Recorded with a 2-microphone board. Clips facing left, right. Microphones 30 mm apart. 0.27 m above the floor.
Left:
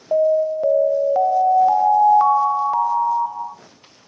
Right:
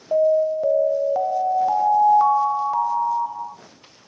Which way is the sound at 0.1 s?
15° left (ahead or behind).